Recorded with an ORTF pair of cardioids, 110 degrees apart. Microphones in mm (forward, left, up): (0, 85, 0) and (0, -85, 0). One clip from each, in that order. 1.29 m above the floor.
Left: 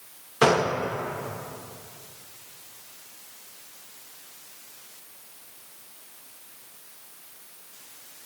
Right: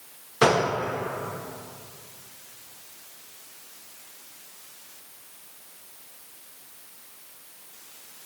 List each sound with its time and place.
0.4 s a gunshot: 5° right, 0.5 m